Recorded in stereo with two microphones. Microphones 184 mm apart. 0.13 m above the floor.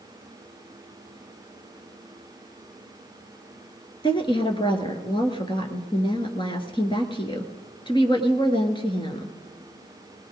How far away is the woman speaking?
About 1.8 m.